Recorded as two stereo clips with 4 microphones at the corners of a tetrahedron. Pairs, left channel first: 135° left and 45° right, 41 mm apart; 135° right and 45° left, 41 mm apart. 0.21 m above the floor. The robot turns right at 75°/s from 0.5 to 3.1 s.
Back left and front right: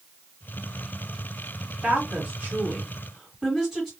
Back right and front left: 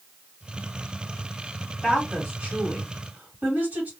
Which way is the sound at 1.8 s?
55° right.